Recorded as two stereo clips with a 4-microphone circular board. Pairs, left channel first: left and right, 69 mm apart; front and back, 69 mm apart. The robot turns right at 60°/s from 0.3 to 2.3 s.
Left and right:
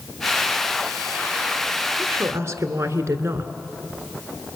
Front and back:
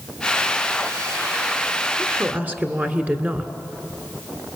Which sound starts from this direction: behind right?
A woman speaking, at 2.0 s.